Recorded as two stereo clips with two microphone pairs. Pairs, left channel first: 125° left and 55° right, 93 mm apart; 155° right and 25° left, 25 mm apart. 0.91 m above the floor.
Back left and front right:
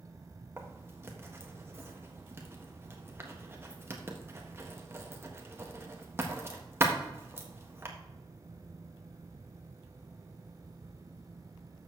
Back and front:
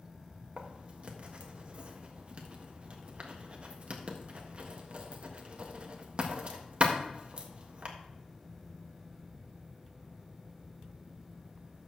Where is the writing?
Straight ahead, 1.4 m.